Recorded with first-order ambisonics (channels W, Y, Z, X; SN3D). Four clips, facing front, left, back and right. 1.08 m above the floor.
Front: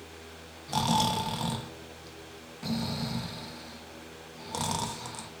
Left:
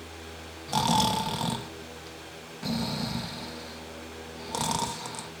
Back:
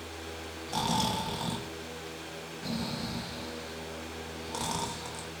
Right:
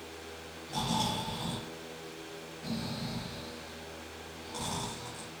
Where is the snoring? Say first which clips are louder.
Left 8 dB, front 3 dB; 75° left, 0.6 m.